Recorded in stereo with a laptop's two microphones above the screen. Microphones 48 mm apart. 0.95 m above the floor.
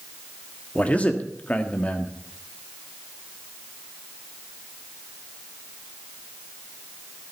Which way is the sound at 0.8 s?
30° left (ahead or behind).